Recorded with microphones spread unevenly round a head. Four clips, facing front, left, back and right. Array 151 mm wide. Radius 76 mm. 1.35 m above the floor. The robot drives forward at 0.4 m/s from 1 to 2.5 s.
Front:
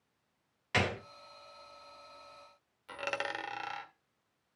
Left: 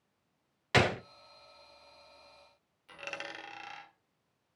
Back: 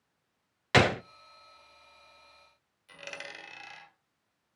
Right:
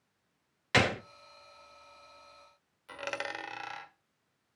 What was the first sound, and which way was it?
A gunshot, 175° right.